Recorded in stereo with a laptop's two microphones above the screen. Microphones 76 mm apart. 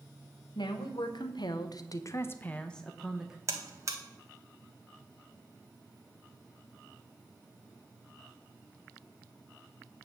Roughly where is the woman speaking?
Left.